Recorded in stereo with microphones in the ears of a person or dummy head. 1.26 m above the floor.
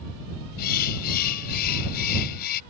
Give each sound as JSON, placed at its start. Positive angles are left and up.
{"t": 0.6, "sound": "a bird", "side_deg": 50}